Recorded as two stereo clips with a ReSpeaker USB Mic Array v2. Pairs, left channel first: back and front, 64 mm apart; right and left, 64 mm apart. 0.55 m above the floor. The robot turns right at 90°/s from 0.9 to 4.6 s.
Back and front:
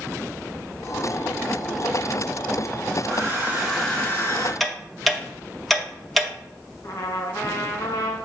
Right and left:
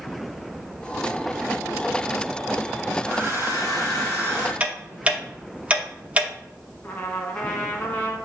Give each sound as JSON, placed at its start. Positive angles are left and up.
{"t": 3.0, "sound": "a hair dryer", "azimuth_deg": 30, "distance_m": 3.0}
{"t": 4.6, "sound": "ticking", "azimuth_deg": 90, "distance_m": 0.8}
{"t": 6.8, "sound": "a trumpet", "azimuth_deg": -150, "distance_m": 1.5}